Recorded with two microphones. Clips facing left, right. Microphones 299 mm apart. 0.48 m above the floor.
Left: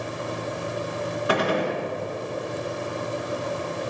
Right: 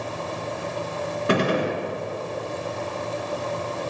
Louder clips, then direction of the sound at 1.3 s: Right 2 dB; 30° right (ahead or behind).